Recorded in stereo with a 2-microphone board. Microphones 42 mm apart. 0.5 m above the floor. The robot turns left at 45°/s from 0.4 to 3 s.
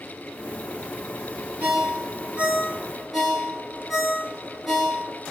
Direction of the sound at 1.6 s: 45° right (ahead or behind).